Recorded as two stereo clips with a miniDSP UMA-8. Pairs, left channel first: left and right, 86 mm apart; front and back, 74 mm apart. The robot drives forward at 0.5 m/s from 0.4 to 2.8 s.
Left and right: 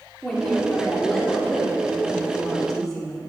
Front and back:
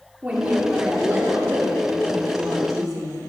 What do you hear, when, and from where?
0.2 s a woman speaking: 160° left, 1.2 m; by 3.2 s 175° left, 2.0 m